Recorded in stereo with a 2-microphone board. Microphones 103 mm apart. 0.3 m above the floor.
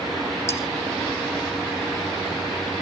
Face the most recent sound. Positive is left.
turn(degrees=25)  # may be behind; listen again after turning